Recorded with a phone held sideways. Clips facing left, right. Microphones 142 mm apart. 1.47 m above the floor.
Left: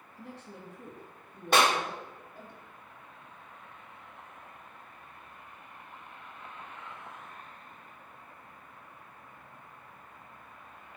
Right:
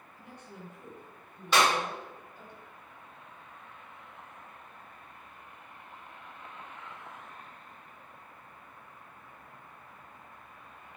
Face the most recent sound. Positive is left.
turn(degrees=55)  # may be behind; listen again after turning